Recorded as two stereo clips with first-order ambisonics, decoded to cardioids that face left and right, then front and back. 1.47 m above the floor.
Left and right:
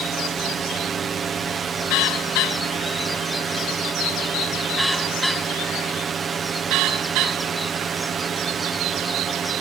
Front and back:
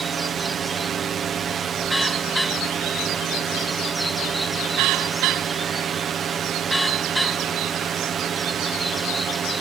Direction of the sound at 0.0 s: 135° right.